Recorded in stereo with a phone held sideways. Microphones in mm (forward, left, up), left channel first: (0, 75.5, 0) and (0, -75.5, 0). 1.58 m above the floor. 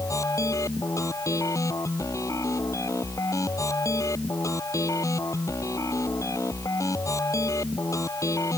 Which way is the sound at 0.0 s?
20° left (ahead or behind).